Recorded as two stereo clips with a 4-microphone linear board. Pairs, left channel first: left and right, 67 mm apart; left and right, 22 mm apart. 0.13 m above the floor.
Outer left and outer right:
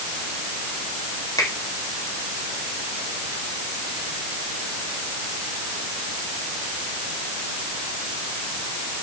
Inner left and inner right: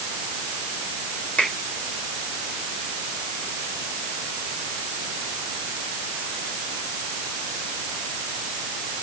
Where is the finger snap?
65° left (ahead or behind), 4 m.